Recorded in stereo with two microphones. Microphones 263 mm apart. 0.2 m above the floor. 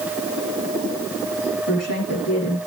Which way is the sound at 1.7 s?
70° left (ahead or behind).